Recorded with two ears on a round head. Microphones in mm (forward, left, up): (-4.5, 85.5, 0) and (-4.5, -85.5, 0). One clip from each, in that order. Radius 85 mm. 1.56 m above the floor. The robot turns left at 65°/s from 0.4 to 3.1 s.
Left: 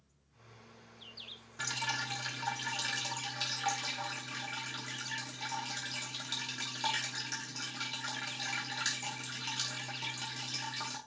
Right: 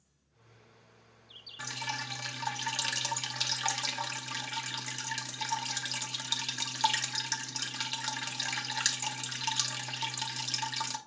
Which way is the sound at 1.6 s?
10° left.